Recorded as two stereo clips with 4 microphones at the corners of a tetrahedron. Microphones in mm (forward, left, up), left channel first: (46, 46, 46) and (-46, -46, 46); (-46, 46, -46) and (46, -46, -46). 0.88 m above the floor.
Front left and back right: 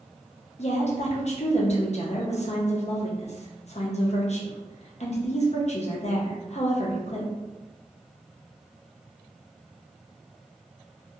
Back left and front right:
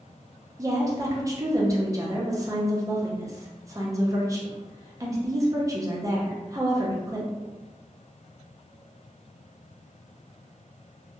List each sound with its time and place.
0.6 s a woman speaking: 15° left, 0.6 m